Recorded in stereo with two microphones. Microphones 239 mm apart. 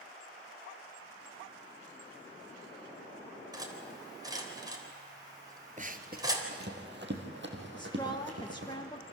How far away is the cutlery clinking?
About 3.5 m.